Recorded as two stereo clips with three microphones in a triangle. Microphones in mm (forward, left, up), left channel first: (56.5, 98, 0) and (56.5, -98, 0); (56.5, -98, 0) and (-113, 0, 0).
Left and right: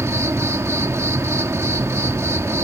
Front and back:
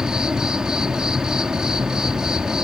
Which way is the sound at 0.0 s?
130° right.